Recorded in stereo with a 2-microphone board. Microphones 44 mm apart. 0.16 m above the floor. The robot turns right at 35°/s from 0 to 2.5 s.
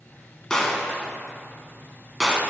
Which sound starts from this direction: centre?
A gunshot, at 0.5 s.